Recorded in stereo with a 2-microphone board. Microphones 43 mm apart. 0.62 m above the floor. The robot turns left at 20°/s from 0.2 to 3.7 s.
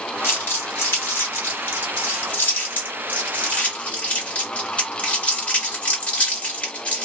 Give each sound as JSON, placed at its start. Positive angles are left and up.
{"t": 0.2, "sound": "crumpling", "side_deg": 70, "distance_m": 1.3}